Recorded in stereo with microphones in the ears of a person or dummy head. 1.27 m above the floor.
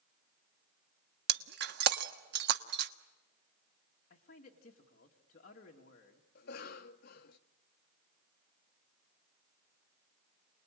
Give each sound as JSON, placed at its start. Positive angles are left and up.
{"t": 1.3, "sound": "breaking glass", "side_deg": -60, "distance_m": 1.2}
{"t": 4.1, "sound": "a man speaking", "side_deg": 45, "distance_m": 1.9}
{"t": 6.3, "sound": "a cough", "side_deg": 50, "distance_m": 1.1}